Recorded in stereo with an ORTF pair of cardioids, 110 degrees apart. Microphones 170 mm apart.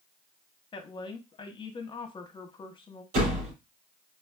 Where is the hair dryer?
No hair dryer in this recording.